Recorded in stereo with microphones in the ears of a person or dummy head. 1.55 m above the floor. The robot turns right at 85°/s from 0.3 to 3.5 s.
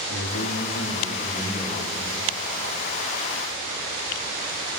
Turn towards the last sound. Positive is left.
turn(degrees=-10)